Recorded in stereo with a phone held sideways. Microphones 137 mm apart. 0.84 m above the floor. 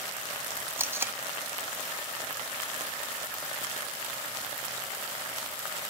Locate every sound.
0.8 s tape being pulled: 15° right (ahead or behind), 1.3 m